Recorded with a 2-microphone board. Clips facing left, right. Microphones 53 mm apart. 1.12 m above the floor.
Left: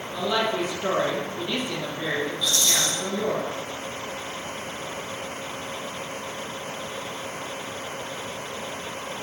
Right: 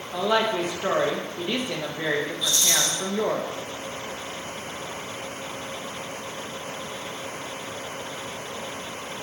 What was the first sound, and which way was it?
A woman speaking, 40° right (ahead or behind).